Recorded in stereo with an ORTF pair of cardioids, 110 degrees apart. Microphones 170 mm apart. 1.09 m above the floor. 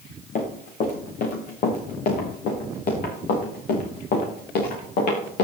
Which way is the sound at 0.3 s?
55° left.